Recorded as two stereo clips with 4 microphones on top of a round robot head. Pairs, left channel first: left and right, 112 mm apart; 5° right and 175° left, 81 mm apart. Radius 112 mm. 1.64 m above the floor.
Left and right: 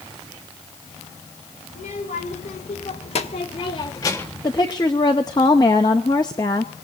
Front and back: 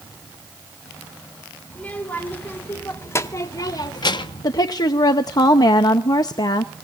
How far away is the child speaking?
About 3 m.